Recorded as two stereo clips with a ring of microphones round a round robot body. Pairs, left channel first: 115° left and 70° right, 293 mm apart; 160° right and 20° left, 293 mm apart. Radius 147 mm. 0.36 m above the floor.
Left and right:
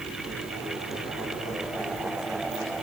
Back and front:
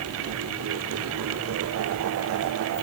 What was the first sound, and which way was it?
Only background noise.